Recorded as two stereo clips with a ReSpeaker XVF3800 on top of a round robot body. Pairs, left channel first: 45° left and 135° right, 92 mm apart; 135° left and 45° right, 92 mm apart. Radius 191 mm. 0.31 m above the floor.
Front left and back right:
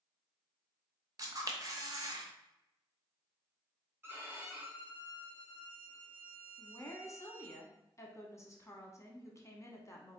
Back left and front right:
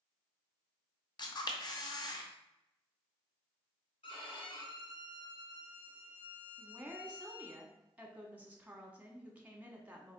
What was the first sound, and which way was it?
A camera shutter, 175° left.